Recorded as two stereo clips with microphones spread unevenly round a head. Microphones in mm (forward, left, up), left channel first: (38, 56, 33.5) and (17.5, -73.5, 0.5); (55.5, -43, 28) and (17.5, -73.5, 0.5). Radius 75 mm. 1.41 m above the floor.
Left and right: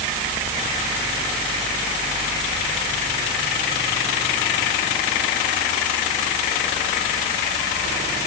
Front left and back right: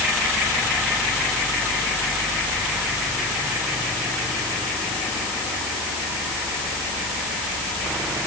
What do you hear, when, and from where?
Only background noise.